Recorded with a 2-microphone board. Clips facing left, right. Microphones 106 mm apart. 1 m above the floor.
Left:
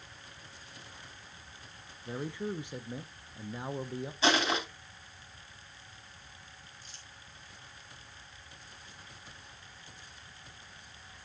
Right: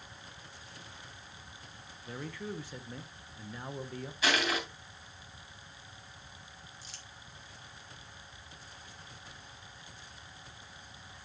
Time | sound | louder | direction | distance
2.0 | a man speaking | left 4 dB | 20° left (ahead or behind) | 0.7 m
4.2 | crushing | left 3 dB | 30° left (ahead or behind) | 3 m
6.8 | crumpling | right 2 dB | 80° right | 1.9 m